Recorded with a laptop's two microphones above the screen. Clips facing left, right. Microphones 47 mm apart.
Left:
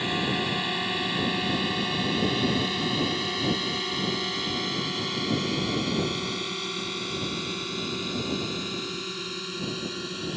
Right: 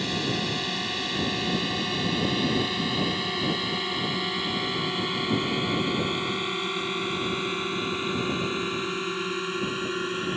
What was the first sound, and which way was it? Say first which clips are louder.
A drone: left 1 dB; 15° left (ahead or behind).